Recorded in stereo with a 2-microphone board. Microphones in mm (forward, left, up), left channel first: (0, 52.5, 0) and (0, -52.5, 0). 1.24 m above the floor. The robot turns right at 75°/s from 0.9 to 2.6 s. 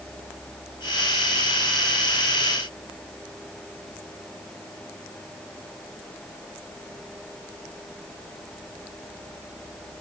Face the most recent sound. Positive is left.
No sound to turn to.